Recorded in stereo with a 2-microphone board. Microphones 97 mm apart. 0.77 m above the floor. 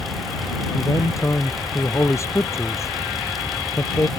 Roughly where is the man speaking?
Left.